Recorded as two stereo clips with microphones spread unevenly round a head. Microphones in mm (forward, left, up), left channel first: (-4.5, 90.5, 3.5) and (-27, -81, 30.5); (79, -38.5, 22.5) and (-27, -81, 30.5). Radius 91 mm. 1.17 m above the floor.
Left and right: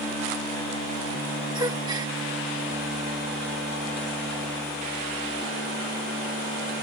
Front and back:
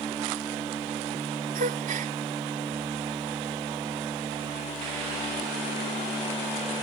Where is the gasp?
165° right.